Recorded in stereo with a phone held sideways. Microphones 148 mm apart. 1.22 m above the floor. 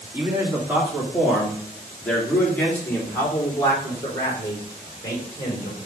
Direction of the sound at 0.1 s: 15° right (ahead or behind).